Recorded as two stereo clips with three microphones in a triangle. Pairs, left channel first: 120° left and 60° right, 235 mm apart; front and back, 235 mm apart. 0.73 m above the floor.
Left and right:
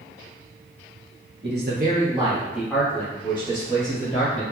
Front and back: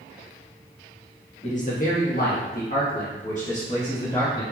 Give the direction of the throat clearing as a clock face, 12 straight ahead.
I don't hear throat clearing.